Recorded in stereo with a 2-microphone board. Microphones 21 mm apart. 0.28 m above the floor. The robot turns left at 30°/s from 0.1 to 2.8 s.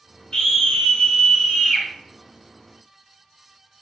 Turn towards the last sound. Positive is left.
turn(degrees=-5)